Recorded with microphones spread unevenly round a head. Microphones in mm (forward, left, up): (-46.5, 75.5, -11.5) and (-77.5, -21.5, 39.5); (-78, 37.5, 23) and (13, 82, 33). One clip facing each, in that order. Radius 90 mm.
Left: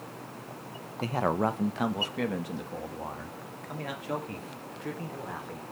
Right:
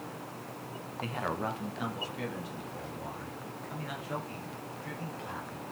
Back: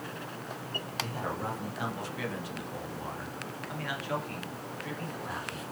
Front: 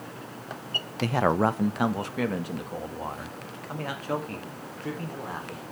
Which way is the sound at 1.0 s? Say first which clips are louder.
Left 7 dB, front 13 dB; 30° left.